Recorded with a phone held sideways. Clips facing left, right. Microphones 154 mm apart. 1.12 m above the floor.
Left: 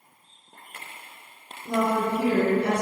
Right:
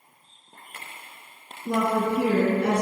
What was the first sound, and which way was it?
A woman speaking, 65° right (ahead or behind).